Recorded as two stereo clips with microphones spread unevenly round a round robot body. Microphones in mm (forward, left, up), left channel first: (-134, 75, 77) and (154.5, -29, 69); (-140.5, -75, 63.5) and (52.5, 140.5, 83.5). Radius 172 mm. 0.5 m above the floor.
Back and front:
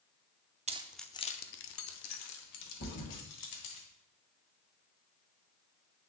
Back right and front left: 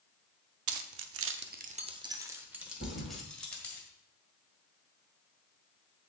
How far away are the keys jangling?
About 0.5 m.